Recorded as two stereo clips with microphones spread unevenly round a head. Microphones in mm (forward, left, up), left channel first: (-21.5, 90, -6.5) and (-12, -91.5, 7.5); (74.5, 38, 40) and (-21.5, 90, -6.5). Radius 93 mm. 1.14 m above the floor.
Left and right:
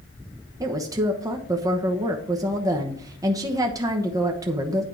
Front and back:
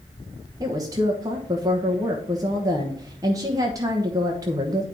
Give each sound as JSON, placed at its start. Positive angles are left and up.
{"t": 0.6, "sound": "a woman speaking", "azimuth_deg": -160, "distance_m": 1.1}